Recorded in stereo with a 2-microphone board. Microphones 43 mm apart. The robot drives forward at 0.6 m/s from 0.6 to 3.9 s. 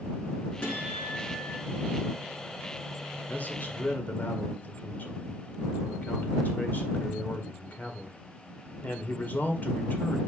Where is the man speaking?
45° left (ahead or behind), 1.8 m.